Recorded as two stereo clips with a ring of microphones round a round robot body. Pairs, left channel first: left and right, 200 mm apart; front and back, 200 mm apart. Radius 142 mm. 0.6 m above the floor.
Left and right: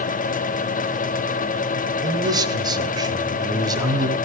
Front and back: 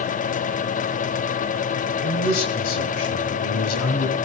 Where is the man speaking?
20° right, 3 m.